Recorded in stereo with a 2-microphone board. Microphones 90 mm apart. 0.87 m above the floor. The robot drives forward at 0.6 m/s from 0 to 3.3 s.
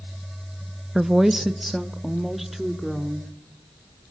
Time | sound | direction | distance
0.9 | a woman speaking | 5° right (ahead or behind) | 0.6 m